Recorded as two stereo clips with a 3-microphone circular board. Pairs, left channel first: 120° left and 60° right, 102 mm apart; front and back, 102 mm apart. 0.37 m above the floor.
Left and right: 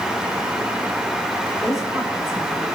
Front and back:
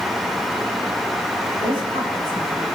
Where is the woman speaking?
150° right, 9.5 m; by 2.6 s 155° right, 10 m.